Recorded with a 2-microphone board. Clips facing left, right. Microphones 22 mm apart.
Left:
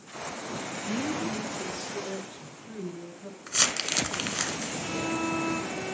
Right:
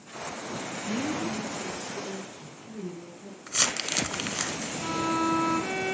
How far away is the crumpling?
About 1.4 m.